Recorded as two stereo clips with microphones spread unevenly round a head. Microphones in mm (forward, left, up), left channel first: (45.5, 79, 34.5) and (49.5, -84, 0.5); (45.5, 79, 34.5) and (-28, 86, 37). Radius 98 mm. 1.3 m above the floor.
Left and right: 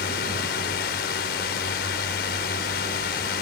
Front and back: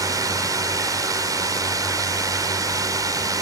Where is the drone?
135° left.